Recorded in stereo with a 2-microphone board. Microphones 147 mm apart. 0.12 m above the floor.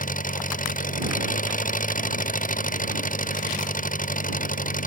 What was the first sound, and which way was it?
An engine running, 60° left (ahead or behind).